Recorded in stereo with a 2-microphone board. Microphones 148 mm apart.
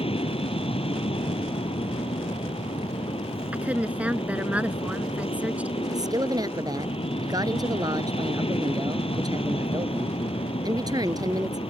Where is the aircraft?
40° left (ahead or behind).